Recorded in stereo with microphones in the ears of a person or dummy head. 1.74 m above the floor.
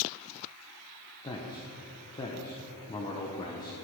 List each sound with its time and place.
1.2 s a man speaking: 25° left (ahead or behind), 1.1 m